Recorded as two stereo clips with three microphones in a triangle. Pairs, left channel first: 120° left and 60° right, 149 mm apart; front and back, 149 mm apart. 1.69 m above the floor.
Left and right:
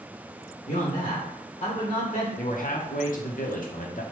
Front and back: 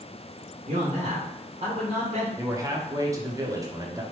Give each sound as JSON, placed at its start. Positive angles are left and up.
{"t": 0.7, "sound": "a man speaking", "azimuth_deg": 150, "distance_m": 0.9}
{"t": 2.4, "sound": "a man speaking", "azimuth_deg": 115, "distance_m": 0.7}